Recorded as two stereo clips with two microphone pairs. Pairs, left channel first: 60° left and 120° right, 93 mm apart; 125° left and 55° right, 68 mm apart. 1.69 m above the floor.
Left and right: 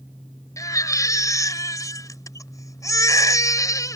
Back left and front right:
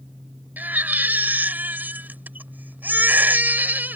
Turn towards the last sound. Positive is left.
turn(degrees=10)